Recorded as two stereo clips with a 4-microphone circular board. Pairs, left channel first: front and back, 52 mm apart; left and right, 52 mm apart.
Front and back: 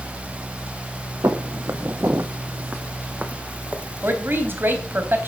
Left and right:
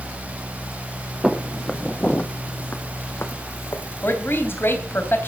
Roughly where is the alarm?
No alarm in this recording.